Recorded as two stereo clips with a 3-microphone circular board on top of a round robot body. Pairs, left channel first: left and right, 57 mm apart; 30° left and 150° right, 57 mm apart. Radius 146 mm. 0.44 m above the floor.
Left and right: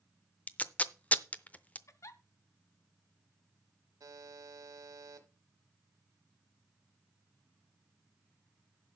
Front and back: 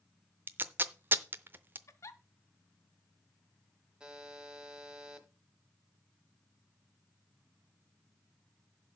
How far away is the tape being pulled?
About 0.7 m.